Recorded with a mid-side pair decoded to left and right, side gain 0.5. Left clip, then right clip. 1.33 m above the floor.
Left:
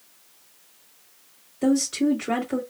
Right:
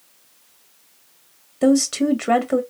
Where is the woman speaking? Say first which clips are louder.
Right 5 dB; 65° right, 1.4 m.